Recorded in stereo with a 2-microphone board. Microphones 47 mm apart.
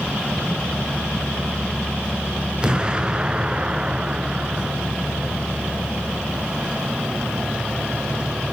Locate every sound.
2.6 s an explosion: 20° right (ahead or behind), 1.0 m